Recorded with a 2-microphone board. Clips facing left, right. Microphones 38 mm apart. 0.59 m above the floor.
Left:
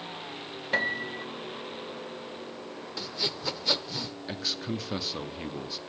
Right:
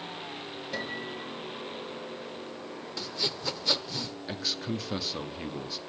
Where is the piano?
45° left (ahead or behind), 0.7 m.